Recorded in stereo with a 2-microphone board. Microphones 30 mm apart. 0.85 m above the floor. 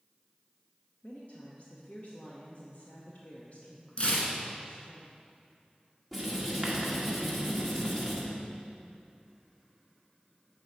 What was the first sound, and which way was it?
A woman speaking, 55° left (ahead or behind).